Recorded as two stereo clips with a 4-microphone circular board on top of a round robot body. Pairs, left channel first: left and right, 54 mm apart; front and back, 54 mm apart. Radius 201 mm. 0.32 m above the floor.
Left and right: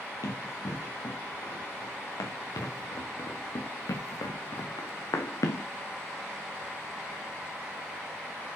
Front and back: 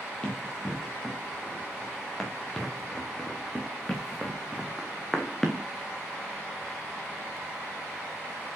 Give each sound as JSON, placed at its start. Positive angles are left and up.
{"t": 0.2, "sound": "running footsteps", "azimuth_deg": 80, "distance_m": 4.5}